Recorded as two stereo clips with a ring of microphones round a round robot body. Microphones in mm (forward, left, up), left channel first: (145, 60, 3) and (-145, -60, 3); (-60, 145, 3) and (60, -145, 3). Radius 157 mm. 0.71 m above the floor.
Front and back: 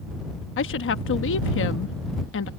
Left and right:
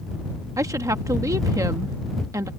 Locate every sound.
0.6 s a woman speaking: 5° left